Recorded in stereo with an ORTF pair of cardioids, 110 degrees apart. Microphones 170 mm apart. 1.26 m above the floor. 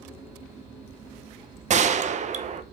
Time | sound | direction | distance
1.7 | a gunshot | 45° right | 0.8 m